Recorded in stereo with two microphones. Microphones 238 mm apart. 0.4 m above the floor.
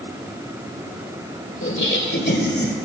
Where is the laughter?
55° left (ahead or behind), 2 m; by 2.8 s 40° left (ahead or behind), 2.0 m.